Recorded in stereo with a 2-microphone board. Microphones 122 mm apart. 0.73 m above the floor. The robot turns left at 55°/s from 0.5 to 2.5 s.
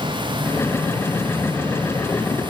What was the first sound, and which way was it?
Only background noise.